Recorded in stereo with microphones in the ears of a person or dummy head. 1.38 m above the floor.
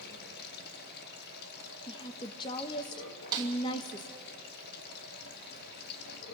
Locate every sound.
0.0 s running water: 50° left (ahead or behind), 1.7 m
1.9 s a woman speaking: 25° left (ahead or behind), 1.2 m
3.3 s a snare drum: 20° right (ahead or behind), 2.5 m